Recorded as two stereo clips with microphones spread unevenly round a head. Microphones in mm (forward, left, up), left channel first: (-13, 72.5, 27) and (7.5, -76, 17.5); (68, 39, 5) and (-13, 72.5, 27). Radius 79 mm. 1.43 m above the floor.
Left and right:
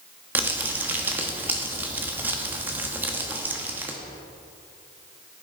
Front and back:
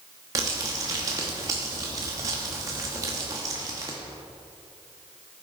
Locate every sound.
0.3 s crumpling: 160° right, 1.1 m